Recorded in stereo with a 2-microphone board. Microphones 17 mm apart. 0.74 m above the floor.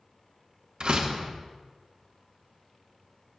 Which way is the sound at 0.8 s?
45° right (ahead or behind).